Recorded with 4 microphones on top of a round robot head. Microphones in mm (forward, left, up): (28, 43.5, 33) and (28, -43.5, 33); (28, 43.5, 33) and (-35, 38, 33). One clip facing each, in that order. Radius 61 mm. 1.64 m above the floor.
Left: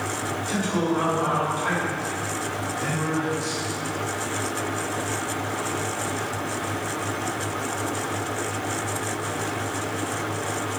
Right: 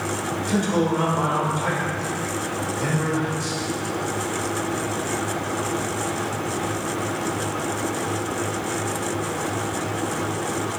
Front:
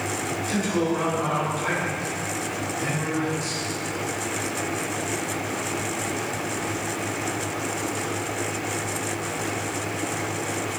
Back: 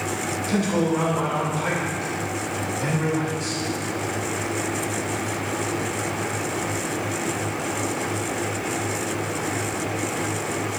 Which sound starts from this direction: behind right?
A man speaking, at 0.5 s.